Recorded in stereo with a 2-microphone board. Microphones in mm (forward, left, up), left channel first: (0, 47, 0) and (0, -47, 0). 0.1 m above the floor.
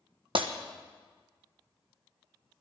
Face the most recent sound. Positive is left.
turn(degrees=-70)  # may be behind; listen again after turning